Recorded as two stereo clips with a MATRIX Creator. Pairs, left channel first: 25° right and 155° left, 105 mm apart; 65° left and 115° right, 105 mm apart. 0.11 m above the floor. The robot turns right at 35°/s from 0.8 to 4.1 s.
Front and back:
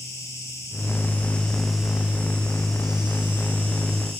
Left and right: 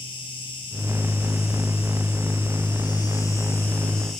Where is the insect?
35° left, 2 m; by 4.2 s 150° left, 2 m.